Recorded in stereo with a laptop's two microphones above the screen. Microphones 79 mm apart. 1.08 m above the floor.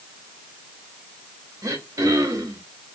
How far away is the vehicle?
No vehicle in this recording.